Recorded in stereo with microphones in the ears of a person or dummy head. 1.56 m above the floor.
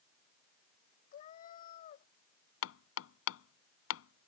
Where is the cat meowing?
45° left (ahead or behind).